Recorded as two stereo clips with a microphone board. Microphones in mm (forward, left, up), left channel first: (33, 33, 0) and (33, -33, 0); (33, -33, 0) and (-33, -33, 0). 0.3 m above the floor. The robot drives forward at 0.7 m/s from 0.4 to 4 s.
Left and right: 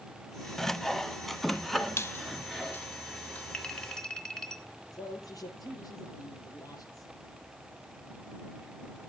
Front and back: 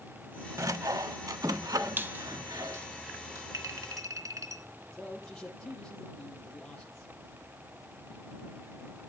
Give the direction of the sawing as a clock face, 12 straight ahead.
6 o'clock.